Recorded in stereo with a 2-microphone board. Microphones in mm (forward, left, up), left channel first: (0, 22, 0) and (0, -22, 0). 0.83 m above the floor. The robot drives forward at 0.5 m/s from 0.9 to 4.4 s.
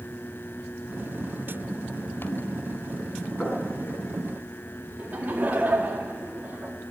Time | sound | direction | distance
3.4 | knocking | 25° left (ahead or behind) | 5.5 m
5.0 | laughter | 40° right (ahead or behind) | 1.4 m